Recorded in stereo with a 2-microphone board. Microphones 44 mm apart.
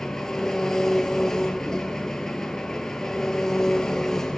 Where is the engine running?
10° left (ahead or behind), 1.4 m.